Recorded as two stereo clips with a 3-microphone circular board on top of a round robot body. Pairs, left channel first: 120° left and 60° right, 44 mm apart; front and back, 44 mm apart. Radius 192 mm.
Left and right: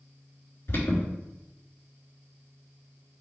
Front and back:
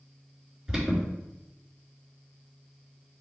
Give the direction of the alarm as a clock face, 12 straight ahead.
9 o'clock.